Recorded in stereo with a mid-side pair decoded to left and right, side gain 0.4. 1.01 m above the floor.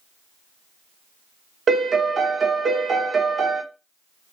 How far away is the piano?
About 0.8 m.